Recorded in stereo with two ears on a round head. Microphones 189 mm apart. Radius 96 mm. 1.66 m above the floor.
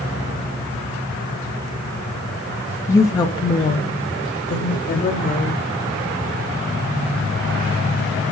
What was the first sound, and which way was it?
A woman speaking, 10° left (ahead or behind).